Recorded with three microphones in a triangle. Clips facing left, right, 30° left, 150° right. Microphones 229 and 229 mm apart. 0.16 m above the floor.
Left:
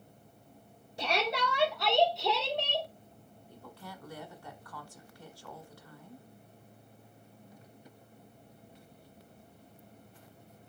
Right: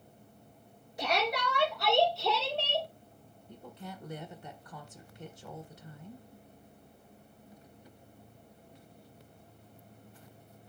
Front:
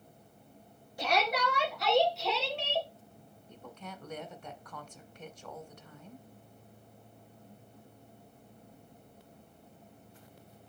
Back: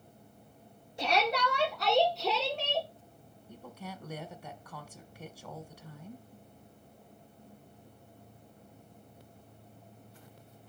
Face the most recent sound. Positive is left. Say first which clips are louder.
# right 3 dB, back 2 dB
turn(degrees=-85)